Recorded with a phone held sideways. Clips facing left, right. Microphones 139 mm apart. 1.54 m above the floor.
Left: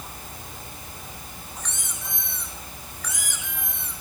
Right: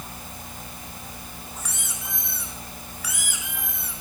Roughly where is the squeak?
Centre.